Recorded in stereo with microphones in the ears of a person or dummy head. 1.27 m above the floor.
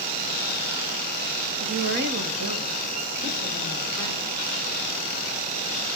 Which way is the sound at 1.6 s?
30° right (ahead or behind).